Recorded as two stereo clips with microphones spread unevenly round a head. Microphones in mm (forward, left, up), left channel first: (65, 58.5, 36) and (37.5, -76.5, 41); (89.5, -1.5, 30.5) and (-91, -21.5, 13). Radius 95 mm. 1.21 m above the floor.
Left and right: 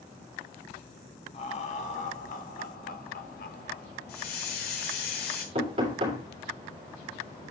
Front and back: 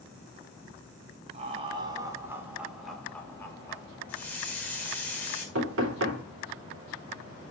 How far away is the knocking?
About 3 m.